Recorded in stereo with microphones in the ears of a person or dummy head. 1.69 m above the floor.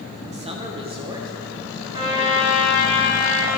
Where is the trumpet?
30° right (ahead or behind), 3.5 m.